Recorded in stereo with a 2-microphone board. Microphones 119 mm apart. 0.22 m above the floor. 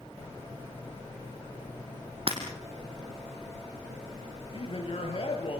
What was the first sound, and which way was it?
Breaking glass, 50° right (ahead or behind).